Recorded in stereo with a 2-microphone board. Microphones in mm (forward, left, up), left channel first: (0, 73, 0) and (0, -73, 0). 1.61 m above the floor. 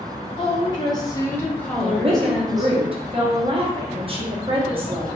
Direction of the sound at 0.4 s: 30° left (ahead or behind).